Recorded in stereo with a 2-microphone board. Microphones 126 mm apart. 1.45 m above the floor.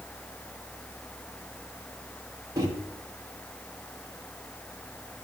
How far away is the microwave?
About 1.4 m.